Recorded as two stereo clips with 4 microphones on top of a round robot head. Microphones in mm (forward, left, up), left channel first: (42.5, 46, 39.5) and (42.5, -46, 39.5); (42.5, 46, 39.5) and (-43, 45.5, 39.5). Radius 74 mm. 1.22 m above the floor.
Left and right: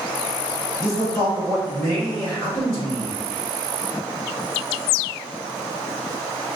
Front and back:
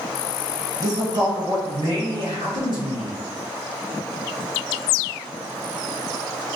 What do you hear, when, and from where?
0.8 s a man speaking: 145° left, 1.3 m; by 3.2 s 170° left, 2.5 m